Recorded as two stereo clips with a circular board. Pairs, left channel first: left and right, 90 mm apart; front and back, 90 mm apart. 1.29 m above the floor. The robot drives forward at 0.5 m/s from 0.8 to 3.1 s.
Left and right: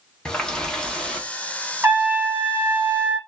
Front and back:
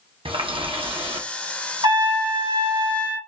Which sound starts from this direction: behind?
A running tap, at 0.2 s.